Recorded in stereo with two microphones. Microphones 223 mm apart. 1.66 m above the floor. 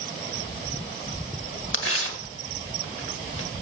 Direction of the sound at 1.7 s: 65° left (ahead or behind).